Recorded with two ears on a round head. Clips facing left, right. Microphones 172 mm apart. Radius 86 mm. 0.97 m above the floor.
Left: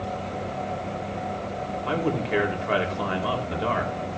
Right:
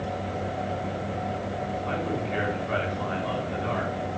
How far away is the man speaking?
About 5 m.